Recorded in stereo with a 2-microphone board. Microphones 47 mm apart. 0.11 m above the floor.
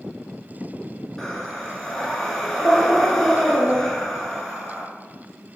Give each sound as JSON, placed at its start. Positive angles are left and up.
{"t": 1.2, "sound": "breathing", "side_deg": 5, "distance_m": 0.6}